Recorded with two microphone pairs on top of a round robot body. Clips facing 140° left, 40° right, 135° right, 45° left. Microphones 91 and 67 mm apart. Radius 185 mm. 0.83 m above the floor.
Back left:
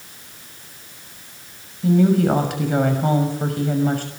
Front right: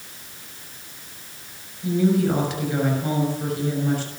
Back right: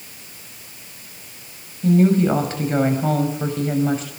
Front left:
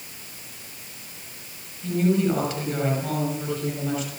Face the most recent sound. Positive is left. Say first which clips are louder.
# back left 4 dB, back right 6 dB
turn(degrees=175)